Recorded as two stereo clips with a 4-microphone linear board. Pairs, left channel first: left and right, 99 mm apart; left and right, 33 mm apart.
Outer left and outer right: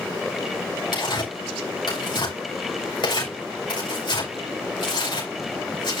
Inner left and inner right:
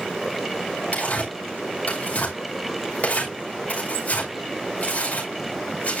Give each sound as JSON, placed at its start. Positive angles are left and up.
{"t": 0.9, "sound": "tearing paper", "side_deg": 50, "distance_m": 5.5}